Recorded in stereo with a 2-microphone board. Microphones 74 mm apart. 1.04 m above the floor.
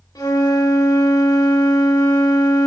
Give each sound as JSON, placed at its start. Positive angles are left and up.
{"t": 0.1, "sound": "a flute", "side_deg": 55, "distance_m": 2.0}